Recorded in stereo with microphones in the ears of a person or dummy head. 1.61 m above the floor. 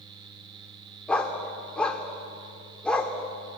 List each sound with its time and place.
1.1 s a dog barking: 5° left (ahead or behind), 2.0 m